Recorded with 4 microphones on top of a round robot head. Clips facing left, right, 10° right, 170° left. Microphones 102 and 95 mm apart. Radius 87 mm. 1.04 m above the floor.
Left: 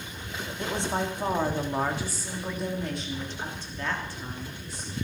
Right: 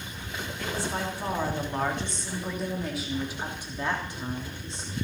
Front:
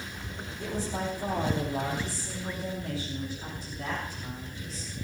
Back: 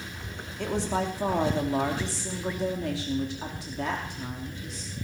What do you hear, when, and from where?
0.6 s a woman speaking: 155° left, 3 m; by 5.0 s 155° right, 3.5 m